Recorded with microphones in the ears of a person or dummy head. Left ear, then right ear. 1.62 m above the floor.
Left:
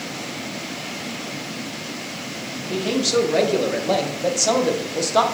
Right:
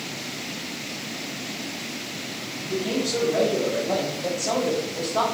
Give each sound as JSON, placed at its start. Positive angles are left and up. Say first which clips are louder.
{"t": 2.6, "sound": "a man speaking", "louder": "left 4 dB", "side_deg": 60, "distance_m": 2.5}